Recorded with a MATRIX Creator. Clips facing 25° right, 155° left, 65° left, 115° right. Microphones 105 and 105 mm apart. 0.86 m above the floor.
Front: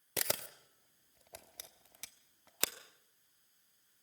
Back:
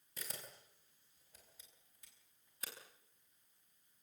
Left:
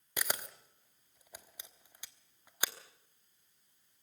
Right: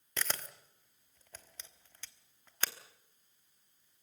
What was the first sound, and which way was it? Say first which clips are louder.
A camera shutter: front 12 dB, left 1 dB; 10° right.